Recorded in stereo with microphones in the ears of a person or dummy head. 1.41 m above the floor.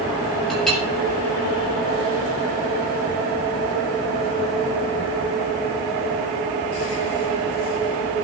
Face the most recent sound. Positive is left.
turn(degrees=0)  # may be behind; listen again after turning